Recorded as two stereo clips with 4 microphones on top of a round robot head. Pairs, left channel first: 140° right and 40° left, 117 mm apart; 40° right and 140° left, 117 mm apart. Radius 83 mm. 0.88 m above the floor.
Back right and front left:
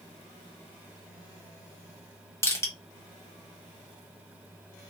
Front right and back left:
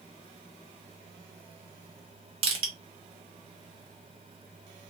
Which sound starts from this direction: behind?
Crushing, at 2.4 s.